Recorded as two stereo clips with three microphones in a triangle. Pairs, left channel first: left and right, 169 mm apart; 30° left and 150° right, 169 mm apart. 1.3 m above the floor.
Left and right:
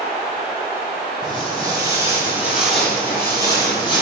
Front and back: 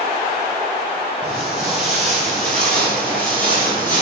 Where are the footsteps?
65° right, 1.6 m; by 4.0 s 95° left, 1.5 m.